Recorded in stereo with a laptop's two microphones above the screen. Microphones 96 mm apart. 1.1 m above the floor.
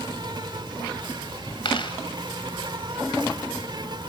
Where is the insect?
55° right (ahead or behind), 2.0 m.